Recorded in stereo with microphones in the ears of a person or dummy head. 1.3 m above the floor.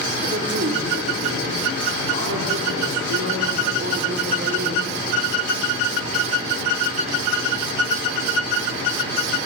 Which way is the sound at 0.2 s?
50° right (ahead or behind).